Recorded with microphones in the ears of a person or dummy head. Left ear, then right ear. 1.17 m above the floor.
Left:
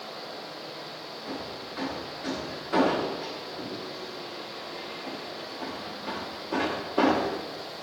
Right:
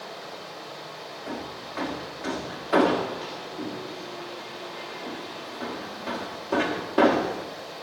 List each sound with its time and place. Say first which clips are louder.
0.0 s running water: even; 40° right (ahead or behind), 3 m
1.3 s hammering: right 1 dB; 25° right (ahead or behind), 1.4 m